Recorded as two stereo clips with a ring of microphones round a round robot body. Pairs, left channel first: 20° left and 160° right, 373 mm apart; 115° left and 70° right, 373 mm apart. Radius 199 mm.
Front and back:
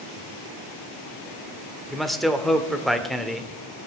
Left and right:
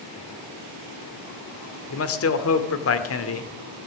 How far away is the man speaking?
About 1.4 m.